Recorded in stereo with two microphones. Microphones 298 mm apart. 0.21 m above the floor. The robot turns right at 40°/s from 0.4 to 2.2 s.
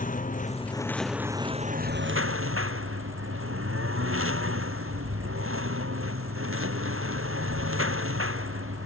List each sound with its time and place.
0.0 s a lawn mower: 155° left; by 8.9 s 135° right